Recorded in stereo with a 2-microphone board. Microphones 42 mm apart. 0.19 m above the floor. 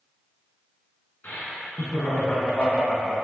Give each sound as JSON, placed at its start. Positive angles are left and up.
{"t": 1.2, "sound": "laughter", "side_deg": 45, "distance_m": 1.7}